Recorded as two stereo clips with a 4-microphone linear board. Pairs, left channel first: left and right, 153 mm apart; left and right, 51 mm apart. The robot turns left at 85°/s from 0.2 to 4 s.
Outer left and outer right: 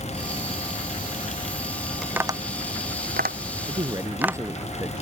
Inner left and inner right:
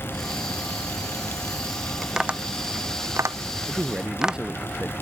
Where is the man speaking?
45° right (ahead or behind); by 5.0 s 15° right (ahead or behind).